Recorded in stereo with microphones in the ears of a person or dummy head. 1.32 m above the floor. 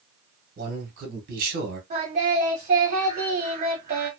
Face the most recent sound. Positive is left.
turn(degrees=-45)  # may be behind; listen again after turning